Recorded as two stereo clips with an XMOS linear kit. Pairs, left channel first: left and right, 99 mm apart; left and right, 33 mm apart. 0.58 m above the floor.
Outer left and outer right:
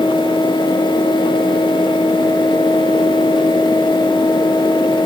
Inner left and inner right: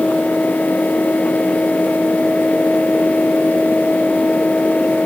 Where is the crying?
No crying in this recording.